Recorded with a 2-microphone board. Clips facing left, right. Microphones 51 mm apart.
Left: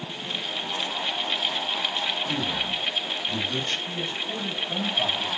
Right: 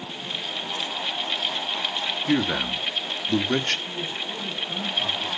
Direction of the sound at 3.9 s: 65° left (ahead or behind).